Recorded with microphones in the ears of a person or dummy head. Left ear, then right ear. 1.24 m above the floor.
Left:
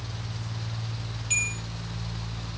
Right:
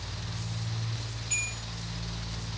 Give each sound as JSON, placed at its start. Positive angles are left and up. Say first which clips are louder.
{"t": 1.3, "sound": "a bell", "louder": "left 5 dB", "side_deg": 25, "distance_m": 0.6}